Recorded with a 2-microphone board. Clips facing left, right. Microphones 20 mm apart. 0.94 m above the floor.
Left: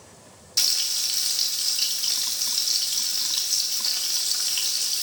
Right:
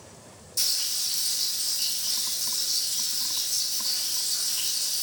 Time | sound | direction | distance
0.6 | frying | 55° left (ahead or behind) | 0.8 m